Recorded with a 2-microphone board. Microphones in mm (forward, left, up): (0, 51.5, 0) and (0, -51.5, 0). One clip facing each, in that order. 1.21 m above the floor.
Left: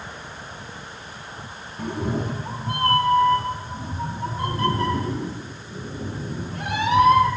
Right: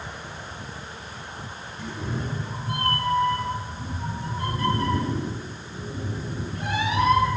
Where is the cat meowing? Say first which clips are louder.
Left 6 dB; 55° left (ahead or behind), 0.8 m; by 7.3 s 85° left, 5.5 m.